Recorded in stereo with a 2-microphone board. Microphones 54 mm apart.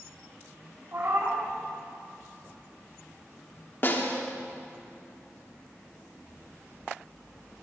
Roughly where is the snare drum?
Left.